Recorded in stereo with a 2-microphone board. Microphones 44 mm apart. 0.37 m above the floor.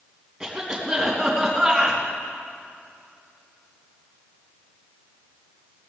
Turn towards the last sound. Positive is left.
turn(degrees=-5)  # may be behind; listen again after turning